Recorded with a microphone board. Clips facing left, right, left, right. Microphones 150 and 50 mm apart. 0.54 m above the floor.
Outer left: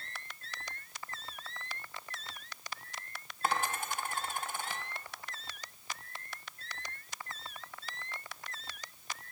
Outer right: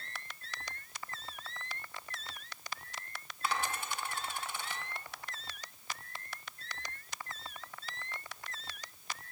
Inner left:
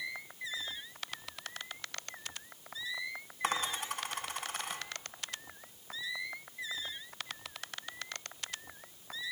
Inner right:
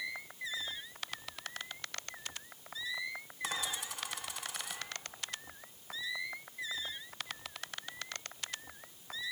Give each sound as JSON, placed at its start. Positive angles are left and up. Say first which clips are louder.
{"t": 3.4, "sound": "a dropped coin", "louder": "outer left 3 dB, inner left 5 dB", "side_deg": 50, "distance_m": 2.0}